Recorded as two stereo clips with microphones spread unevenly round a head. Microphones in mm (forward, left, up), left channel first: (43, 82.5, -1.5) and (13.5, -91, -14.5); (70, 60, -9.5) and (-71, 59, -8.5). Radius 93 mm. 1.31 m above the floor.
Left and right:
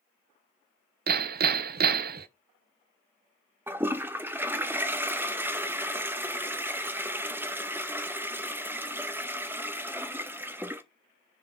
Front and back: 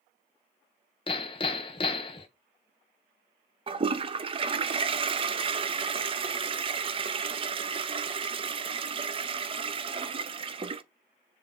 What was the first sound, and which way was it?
Hammering, 65° right.